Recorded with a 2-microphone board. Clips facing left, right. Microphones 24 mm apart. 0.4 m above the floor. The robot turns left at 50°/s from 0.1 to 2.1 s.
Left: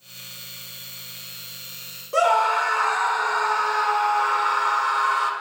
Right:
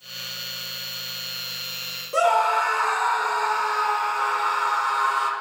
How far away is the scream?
About 1.4 m.